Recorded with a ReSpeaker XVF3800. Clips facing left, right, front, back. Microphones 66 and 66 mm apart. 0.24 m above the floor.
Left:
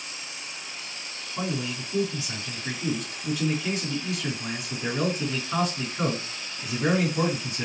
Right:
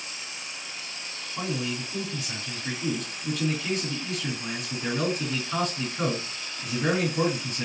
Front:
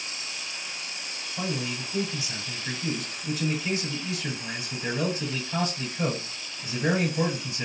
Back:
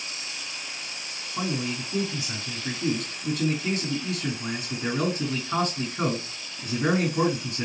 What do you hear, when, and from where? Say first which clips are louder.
1.4 s a man speaking: even, back 2 dB; 175° left, 3.5 m